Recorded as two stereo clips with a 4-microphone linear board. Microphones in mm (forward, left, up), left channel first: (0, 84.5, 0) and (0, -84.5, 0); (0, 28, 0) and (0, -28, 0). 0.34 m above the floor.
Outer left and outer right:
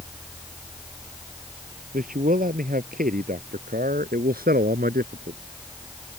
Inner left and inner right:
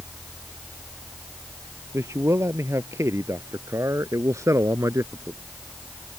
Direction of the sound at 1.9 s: 60° right (ahead or behind).